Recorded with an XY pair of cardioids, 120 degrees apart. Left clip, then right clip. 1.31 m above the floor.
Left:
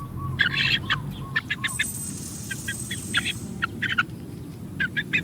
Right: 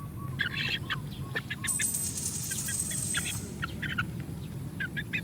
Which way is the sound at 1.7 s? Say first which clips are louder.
Left 5 dB; 45° right.